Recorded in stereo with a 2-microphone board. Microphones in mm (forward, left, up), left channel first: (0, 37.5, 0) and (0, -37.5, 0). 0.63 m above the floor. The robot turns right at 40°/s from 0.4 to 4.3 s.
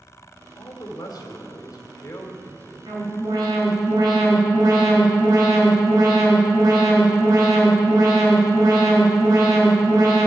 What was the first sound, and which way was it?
A man speaking, 70° left.